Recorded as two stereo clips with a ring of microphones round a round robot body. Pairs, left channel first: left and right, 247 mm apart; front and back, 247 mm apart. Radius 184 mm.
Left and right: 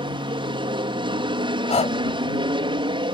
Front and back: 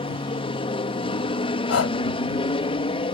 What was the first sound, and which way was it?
An aircraft, 45° right.